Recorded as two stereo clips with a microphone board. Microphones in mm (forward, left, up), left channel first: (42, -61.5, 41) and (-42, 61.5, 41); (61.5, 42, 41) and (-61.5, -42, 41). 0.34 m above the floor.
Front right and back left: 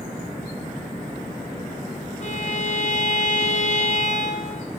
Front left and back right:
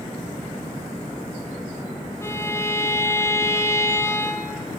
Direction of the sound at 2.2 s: 35° right.